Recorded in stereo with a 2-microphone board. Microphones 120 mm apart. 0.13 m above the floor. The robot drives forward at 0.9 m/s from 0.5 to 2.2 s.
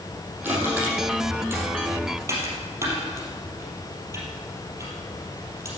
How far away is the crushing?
About 5.5 m.